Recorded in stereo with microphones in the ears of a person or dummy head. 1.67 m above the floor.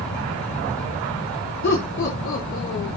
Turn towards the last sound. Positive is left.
turn(degrees=50)  # may be behind; listen again after turning